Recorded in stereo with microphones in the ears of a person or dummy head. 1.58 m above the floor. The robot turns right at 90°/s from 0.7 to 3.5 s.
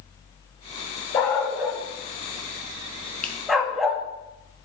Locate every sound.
1.1 s a dog barking: 15° left (ahead or behind), 1.0 m; by 4.0 s centre (ahead or behind), 1.0 m
3.2 s a finger snap: 5° left (ahead or behind), 0.9 m; by 3.4 s 15° left (ahead or behind), 0.9 m